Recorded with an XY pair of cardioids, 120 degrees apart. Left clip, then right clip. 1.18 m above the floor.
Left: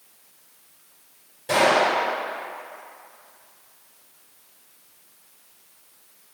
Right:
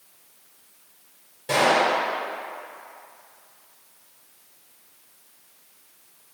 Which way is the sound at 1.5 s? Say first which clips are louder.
Left 1 dB; 10° right.